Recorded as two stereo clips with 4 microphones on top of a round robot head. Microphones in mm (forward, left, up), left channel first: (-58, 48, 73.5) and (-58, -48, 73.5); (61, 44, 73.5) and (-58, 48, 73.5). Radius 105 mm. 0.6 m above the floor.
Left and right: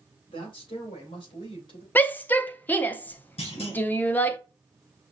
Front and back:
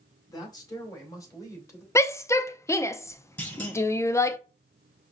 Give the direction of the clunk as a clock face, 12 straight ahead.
10 o'clock.